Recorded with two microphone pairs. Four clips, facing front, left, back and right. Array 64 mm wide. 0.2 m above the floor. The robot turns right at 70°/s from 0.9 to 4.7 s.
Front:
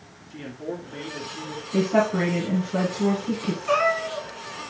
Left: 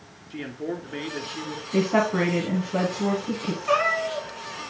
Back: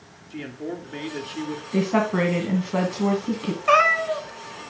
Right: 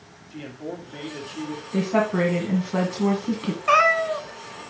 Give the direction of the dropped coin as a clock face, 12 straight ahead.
No dropped coin in this recording.